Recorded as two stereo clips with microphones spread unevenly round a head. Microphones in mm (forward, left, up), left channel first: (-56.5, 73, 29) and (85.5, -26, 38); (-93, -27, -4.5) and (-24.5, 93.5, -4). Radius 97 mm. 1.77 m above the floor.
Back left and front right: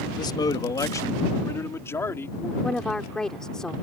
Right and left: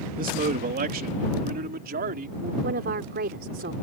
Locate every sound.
0.2 s a man speaking: 80° left; by 2.5 s 65° left
2.6 s a woman speaking: 60° left